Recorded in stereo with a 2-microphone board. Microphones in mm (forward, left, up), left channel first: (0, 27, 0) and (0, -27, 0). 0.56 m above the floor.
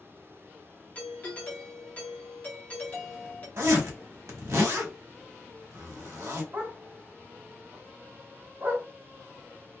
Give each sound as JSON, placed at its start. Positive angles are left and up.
{"t": 0.9, "sound": "a doorbell", "side_deg": 30, "distance_m": 1.2}
{"t": 3.6, "sound": "a zipper", "side_deg": -65, "distance_m": 1.1}
{"t": 6.5, "sound": "a dog barking", "side_deg": -40, "distance_m": 1.0}